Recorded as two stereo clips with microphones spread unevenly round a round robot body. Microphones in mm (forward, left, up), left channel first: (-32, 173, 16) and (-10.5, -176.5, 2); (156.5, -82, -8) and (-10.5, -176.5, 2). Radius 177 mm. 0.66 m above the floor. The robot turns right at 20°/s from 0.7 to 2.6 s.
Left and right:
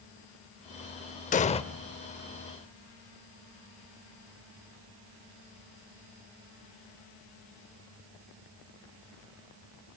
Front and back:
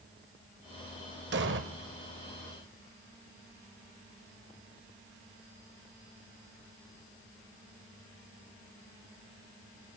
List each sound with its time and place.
1.3 s an explosion: 160° left, 0.7 m; by 1.6 s 170° left, 0.7 m